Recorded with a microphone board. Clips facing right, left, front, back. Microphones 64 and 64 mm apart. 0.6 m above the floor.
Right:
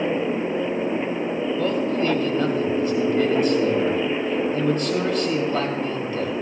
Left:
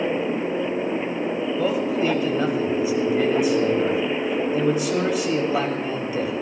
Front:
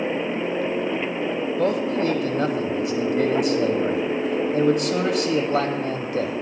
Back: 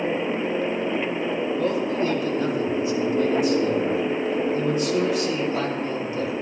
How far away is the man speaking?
About 3 m.